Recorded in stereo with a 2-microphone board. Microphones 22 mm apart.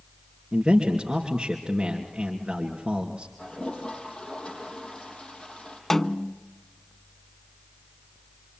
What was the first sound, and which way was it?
A man speaking, 20° right (ahead or behind).